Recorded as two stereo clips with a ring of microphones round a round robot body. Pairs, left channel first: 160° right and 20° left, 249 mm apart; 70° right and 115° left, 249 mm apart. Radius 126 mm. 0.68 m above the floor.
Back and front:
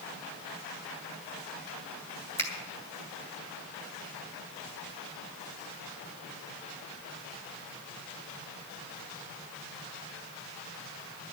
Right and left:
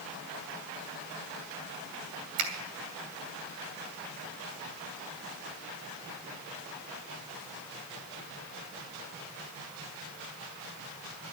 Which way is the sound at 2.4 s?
125° left.